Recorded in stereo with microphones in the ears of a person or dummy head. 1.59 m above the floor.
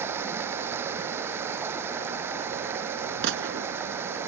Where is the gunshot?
65° right (ahead or behind).